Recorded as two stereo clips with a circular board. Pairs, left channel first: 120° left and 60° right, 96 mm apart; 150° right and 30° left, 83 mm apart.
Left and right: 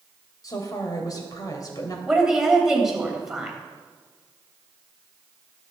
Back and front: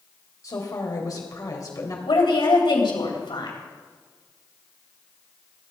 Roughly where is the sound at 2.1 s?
Behind right.